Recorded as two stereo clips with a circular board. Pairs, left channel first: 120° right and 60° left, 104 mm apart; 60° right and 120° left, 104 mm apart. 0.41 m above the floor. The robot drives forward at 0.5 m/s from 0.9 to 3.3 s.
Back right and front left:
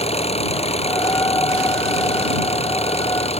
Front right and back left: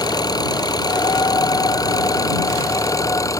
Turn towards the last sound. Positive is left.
turn(degrees=-120)